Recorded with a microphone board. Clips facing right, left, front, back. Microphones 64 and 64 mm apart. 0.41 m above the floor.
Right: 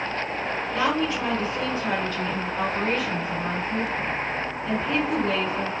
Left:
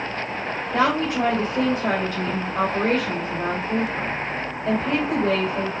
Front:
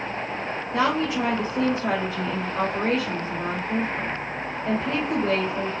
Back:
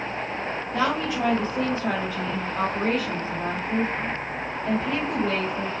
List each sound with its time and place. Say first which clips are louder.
0.7 s a woman speaking: left 4 dB, front 2 dB; 65° left, 2.5 m